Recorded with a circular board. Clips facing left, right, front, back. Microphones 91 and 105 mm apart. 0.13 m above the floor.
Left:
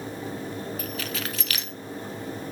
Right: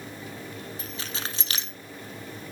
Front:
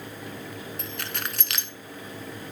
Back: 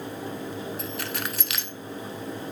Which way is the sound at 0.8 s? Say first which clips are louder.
Left 4 dB, back 3 dB; 90° right.